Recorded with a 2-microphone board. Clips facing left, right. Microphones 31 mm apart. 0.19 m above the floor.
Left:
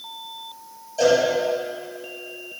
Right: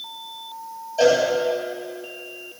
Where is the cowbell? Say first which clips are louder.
Right 1 dB; 15° right (ahead or behind), 4.5 m.